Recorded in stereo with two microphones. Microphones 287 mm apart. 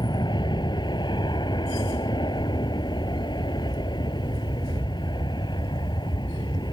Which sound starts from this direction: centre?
An aircraft, at 0.0 s.